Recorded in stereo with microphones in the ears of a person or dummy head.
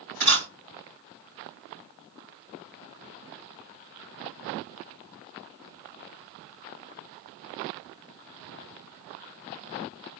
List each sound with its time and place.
0.2 s a camera shutter: 55° right (ahead or behind), 1.6 m